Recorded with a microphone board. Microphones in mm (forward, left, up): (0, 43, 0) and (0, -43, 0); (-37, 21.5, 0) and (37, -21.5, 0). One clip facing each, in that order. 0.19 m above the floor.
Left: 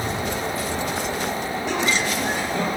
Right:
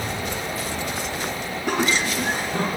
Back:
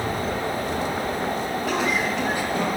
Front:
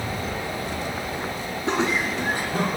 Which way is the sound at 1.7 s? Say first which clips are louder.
Right 2 dB, front 2 dB; 85° right.